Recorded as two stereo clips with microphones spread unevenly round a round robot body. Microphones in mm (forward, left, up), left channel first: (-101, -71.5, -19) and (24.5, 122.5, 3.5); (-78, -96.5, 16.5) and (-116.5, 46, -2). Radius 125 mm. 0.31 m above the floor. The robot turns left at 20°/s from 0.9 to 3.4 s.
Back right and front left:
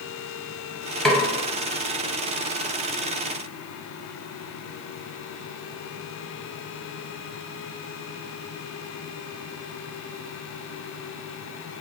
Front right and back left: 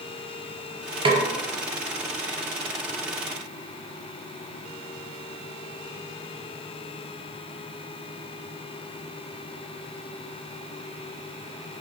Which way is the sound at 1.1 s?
150° left.